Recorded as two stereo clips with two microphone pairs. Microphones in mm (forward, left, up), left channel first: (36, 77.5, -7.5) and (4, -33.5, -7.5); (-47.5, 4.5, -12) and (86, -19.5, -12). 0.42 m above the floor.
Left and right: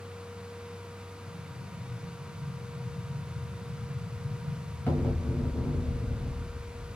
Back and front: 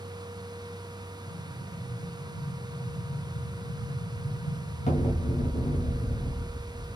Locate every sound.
1.3 s an explosion: 145° left, 1.2 m